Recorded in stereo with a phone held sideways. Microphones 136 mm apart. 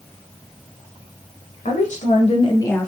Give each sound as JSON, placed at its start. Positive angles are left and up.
{"t": 1.6, "sound": "a woman speaking", "side_deg": 70, "distance_m": 1.0}